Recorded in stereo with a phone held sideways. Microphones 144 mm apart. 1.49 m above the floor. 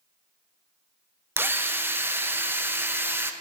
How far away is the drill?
About 0.5 m.